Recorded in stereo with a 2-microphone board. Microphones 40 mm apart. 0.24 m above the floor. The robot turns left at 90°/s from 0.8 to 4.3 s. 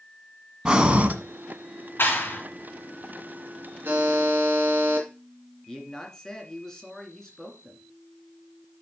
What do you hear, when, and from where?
0.7 s breathing: 20° right, 1.2 m; by 1.1 s 55° right, 1.2 m
2.0 s a clap: 85° left, 2.5 m; by 2.4 s 50° left, 2.5 m
3.9 s a buzzer: 85° right, 2.5 m; by 5.1 s 125° right, 2.5 m
5.7 s a man speaking: 15° left (ahead or behind), 2.5 m